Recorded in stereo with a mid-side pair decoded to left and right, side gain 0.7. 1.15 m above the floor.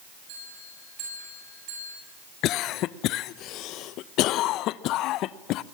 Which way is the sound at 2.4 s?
55° left.